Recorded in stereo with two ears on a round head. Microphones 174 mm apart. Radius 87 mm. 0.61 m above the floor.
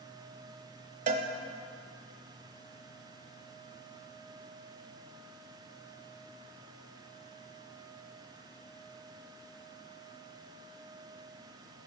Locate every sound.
1.1 s a cowbell: 40° right (ahead or behind), 0.6 m